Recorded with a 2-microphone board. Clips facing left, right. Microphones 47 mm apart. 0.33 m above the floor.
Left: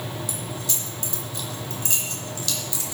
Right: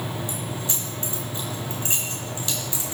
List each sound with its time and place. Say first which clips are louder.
0.3 s keys jangling: right 2 dB; 25° right (ahead or behind), 3 m